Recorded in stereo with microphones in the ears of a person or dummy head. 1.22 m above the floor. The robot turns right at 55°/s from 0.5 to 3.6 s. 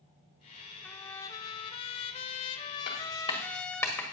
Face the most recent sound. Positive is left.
turn(degrees=10)  # may be behind; listen again after turning